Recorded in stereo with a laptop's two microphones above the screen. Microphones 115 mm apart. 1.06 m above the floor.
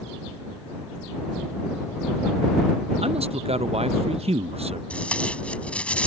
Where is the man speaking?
60° right (ahead or behind).